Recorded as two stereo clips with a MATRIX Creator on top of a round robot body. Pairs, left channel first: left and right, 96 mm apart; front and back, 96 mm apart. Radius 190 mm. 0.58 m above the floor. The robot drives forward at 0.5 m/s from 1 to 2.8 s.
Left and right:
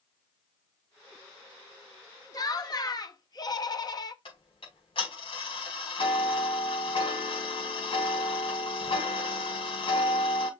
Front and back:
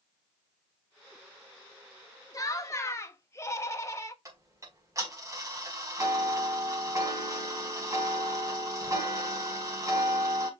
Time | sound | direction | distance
2.3 | laughter | 45° left | 2 m
4.2 | ticking | 120° left | 4.5 m